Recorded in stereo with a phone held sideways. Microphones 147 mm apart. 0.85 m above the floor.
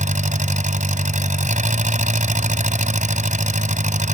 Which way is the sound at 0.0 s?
60° right (ahead or behind).